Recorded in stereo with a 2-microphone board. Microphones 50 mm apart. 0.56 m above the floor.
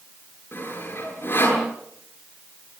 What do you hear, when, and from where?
0.5 s sawing: 50° left (ahead or behind), 9 m